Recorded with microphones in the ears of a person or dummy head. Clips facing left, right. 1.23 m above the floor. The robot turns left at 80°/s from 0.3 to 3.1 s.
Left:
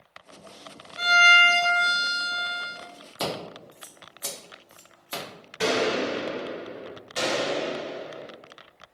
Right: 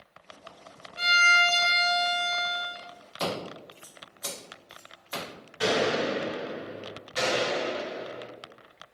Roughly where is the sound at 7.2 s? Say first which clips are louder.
Left 1 dB; left.